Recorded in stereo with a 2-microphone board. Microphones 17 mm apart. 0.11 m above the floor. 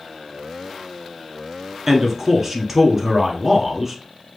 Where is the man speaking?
20° right (ahead or behind), 1.1 m.